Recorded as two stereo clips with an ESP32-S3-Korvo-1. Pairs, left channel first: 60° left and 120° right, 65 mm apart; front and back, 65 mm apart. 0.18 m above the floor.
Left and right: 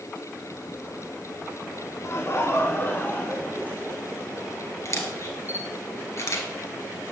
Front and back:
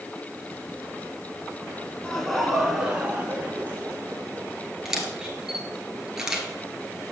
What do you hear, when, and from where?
2.0 s laughter: 75° left, 1.4 m; by 4.5 s 130° left, 2 m
4.8 s a camera shutter: 100° left, 1.5 m